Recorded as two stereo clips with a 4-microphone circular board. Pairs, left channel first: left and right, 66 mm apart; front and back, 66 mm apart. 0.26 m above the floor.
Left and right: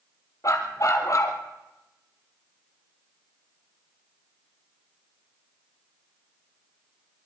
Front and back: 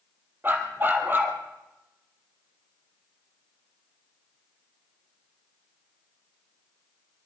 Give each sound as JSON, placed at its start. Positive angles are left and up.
{"t": 0.4, "sound": "a dog barking", "azimuth_deg": 125, "distance_m": 3.0}